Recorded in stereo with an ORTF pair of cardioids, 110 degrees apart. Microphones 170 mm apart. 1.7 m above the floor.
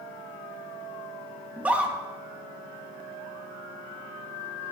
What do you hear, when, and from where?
1.6 s a scream: 10° right, 3 m